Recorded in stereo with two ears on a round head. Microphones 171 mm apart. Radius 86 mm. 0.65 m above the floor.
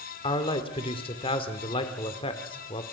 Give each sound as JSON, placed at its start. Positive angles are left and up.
{"t": 0.2, "sound": "a man speaking", "side_deg": 25, "distance_m": 1.6}